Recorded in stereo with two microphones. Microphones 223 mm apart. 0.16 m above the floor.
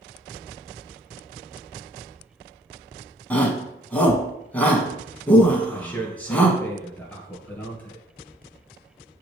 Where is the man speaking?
10° left (ahead or behind), 2.5 m.